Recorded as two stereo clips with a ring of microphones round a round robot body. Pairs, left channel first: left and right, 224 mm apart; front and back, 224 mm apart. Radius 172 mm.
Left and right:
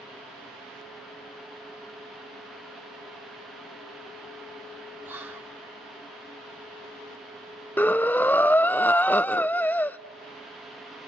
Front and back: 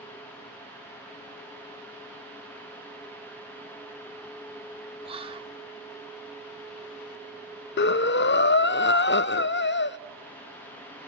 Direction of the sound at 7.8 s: 10° left.